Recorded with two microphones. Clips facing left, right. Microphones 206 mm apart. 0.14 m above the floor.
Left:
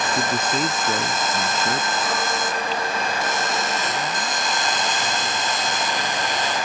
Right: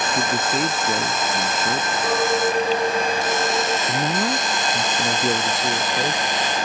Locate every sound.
0.1 s a man speaking: 5° right (ahead or behind)
2.0 s a clink: 45° right (ahead or behind)
3.9 s a man speaking: 70° right (ahead or behind)